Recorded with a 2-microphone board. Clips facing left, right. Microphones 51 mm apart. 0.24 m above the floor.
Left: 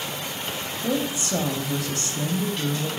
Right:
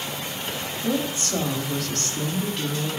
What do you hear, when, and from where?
0.8 s a woman speaking: 20° left (ahead or behind), 0.9 m